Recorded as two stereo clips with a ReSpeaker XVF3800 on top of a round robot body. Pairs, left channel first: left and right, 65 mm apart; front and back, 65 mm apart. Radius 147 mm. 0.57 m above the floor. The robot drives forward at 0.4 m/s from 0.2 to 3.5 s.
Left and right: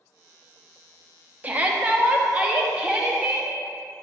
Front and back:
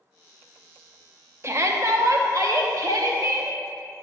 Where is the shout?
150° right, 1.1 m; by 3.5 s 165° right, 1.8 m.